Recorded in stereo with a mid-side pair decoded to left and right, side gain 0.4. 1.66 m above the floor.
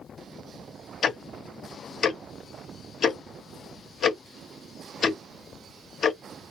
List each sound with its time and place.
1.0 s ticking: 55° left, 0.7 m